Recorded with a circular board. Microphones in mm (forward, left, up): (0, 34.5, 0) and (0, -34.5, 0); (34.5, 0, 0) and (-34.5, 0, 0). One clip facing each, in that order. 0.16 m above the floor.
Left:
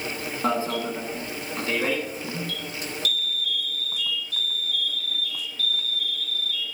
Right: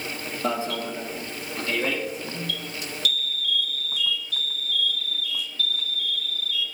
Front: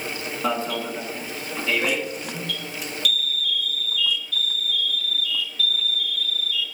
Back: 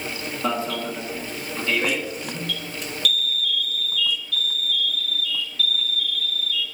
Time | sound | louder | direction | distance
0.4 | an alarm | left 2 dB, even | 85° left | 1.7 m